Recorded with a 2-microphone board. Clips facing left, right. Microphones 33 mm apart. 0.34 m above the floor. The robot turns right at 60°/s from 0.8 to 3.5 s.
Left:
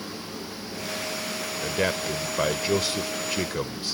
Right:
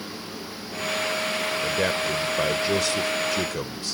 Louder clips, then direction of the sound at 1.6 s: Left 1 dB; centre (ahead or behind).